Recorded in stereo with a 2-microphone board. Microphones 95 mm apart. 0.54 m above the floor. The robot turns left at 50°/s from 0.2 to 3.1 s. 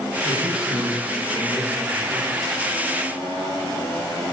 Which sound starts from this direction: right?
A man speaking, at 0.2 s.